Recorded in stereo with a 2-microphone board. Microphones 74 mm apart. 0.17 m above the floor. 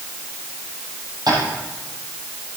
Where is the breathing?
I don't hear breathing.